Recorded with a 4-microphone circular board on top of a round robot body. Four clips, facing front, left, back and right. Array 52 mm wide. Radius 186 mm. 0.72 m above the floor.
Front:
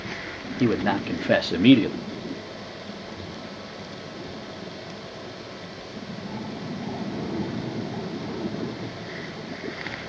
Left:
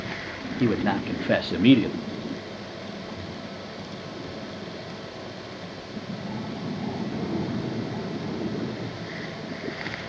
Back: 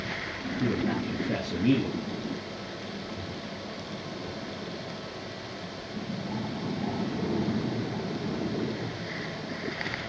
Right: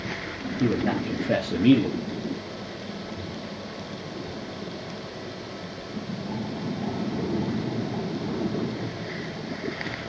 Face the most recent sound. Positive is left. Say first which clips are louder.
# left 1 dB, front 6 dB
turn(degrees=35)